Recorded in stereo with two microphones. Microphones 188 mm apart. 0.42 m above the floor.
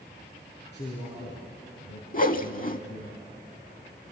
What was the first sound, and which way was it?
A man speaking, 70° left (ahead or behind).